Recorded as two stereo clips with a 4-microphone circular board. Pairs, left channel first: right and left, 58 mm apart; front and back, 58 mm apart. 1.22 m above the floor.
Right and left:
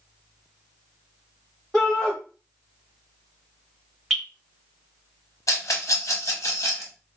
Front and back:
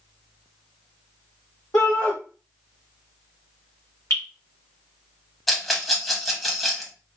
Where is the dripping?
Straight ahead, 1.8 m.